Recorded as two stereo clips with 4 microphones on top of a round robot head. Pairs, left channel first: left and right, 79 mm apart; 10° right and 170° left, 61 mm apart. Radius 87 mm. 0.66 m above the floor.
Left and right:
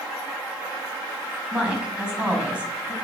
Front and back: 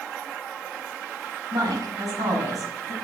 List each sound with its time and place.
1.5 s a woman speaking: 165° right, 5.5 m